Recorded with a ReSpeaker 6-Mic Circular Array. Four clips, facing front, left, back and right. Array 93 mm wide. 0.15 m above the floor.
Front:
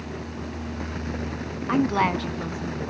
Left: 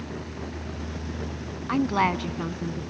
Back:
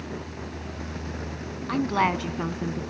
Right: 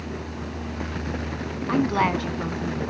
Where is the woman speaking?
5° right, 1.0 m; by 2.8 s 175° left, 1.3 m.